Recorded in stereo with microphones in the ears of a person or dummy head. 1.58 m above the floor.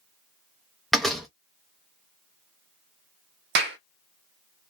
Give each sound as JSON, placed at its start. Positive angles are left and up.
{"t": 0.9, "sound": "a door slam", "side_deg": 5, "distance_m": 0.5}
{"t": 3.5, "sound": "a clap", "side_deg": -60, "distance_m": 0.6}